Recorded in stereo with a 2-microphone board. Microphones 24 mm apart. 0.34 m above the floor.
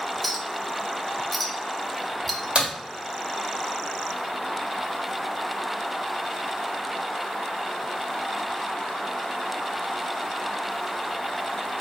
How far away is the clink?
About 0.6 m.